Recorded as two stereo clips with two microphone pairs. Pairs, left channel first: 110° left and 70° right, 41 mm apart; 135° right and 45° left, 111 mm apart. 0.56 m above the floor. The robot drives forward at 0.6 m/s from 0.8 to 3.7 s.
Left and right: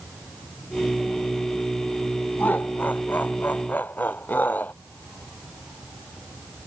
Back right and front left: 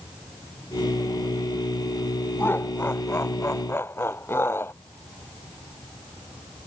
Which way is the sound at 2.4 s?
155° left.